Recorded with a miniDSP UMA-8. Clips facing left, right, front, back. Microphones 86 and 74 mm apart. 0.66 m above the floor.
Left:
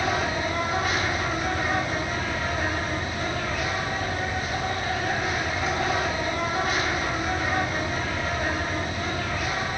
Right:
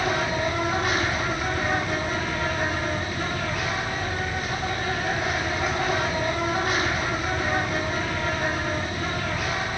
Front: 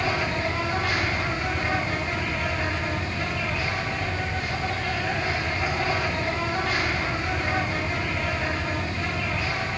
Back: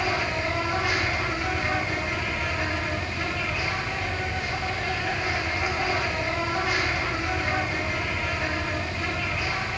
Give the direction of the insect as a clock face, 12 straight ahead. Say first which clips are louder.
Right 1 dB, front 1 dB; 3 o'clock.